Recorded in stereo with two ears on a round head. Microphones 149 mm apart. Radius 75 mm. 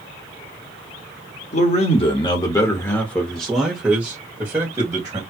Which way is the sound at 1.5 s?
45° left (ahead or behind).